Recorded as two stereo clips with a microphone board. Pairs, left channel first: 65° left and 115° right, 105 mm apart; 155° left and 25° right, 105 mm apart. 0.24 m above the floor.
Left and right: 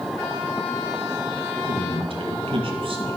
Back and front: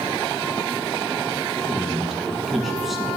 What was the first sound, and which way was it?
A man speaking, 110° right.